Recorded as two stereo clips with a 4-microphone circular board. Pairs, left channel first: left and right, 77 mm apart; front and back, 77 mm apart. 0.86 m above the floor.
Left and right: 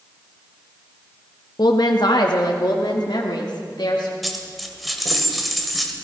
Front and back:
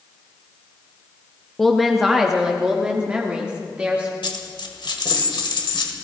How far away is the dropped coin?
About 1.6 m.